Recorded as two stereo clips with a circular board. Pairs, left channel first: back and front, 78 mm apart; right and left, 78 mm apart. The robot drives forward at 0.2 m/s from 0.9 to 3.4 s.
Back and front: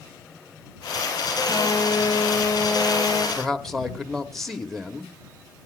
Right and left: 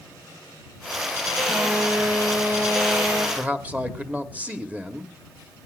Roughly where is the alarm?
Behind left.